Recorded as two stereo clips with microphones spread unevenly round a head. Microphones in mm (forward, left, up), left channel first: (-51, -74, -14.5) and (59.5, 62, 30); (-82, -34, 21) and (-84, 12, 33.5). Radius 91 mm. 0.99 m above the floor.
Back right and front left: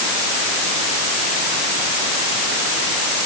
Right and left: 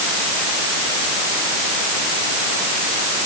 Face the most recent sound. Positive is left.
No sound to turn to.